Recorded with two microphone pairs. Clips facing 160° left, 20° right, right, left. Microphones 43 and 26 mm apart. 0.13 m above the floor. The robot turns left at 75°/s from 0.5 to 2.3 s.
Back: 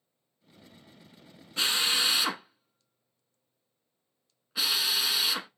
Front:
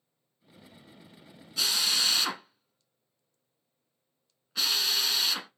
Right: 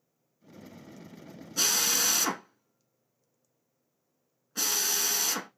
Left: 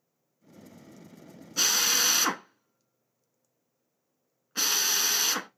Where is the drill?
145° left, 0.5 m; by 5.5 s 90° left, 0.5 m.